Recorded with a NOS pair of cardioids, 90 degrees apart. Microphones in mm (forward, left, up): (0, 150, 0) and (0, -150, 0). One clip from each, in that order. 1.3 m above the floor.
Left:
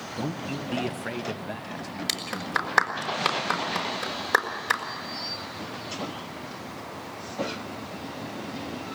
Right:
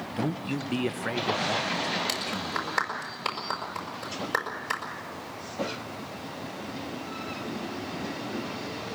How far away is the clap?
About 5.5 m.